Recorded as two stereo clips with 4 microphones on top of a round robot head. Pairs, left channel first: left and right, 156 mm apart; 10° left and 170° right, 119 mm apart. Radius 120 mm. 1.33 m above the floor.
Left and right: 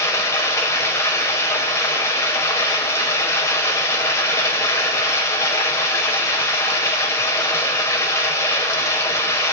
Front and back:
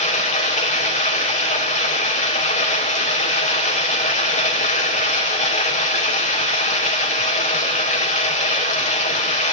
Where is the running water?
20° left, 5 m.